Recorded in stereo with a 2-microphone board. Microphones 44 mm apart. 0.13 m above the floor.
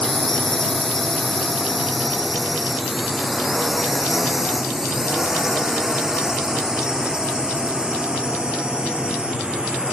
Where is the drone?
15° left (ahead or behind); by 9.9 s 20° right (ahead or behind).